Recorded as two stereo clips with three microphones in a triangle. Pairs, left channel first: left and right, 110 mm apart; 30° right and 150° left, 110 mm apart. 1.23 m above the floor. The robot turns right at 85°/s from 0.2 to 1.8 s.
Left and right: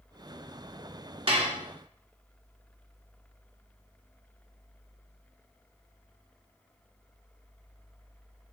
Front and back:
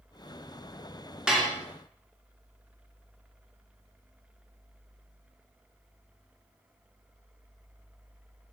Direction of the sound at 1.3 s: 125° right.